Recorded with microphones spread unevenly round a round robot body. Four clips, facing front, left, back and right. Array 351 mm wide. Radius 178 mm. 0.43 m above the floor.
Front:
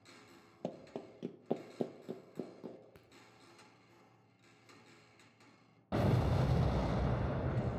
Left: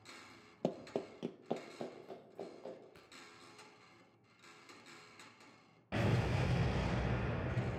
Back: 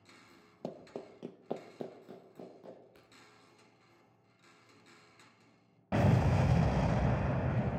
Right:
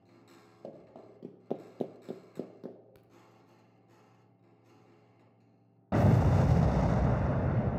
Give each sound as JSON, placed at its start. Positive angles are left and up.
{"t": 0.6, "sound": "running footsteps", "azimuth_deg": 75, "distance_m": 0.7}
{"t": 3.0, "sound": "a crack", "azimuth_deg": -20, "distance_m": 1.2}
{"t": 5.9, "sound": "an explosion", "azimuth_deg": -130, "distance_m": 0.5}